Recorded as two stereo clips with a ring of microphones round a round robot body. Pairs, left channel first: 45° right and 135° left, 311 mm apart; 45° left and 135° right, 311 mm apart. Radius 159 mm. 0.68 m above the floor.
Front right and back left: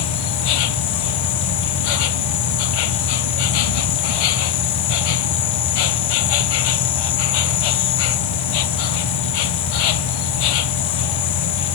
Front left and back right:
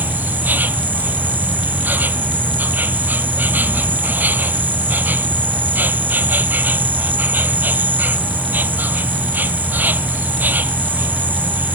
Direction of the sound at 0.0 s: 50° right.